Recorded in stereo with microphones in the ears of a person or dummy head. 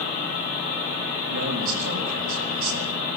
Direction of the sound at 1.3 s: 85° right.